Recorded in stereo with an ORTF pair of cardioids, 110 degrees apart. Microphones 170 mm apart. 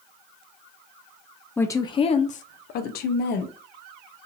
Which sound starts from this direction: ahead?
A woman speaking, at 1.6 s.